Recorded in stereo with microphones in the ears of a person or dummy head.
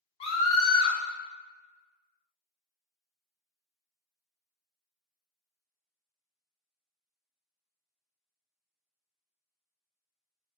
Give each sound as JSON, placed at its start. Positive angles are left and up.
{"t": 0.2, "sound": "a scream", "side_deg": 35, "distance_m": 0.8}